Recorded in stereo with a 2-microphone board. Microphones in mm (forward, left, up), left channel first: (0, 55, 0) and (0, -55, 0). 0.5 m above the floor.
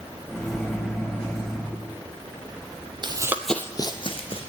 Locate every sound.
0.3 s a microwave: 5° left (ahead or behind), 2.5 m
3.0 s running footsteps: 45° right (ahead or behind), 0.8 m; by 4.4 s 60° left (ahead or behind), 1.5 m